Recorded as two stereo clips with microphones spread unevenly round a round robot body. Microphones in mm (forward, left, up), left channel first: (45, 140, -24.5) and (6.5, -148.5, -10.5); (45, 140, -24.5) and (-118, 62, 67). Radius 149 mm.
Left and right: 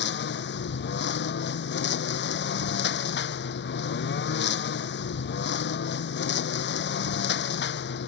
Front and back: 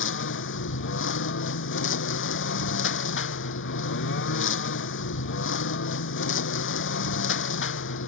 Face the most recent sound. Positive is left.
turn(degrees=30)